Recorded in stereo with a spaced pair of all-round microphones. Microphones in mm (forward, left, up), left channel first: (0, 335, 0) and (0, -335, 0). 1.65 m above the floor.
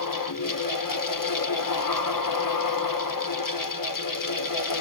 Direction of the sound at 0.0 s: 30° left (ahead or behind).